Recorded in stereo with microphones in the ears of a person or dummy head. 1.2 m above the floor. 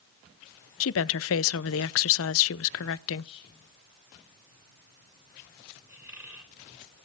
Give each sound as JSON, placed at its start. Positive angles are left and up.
{"t": 0.8, "sound": "a woman speaking", "side_deg": 60, "distance_m": 0.6}
{"t": 3.2, "sound": "whispering", "side_deg": 30, "distance_m": 7.5}
{"t": 5.9, "sound": "a squeak", "side_deg": -20, "distance_m": 3.0}